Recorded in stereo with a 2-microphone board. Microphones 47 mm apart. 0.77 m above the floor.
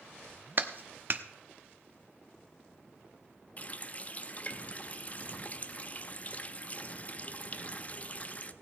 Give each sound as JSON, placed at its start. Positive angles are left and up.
{"t": 0.6, "sound": "a clap", "side_deg": -45, "distance_m": 0.9}
{"t": 3.6, "sound": "a running tap", "side_deg": 35, "distance_m": 0.6}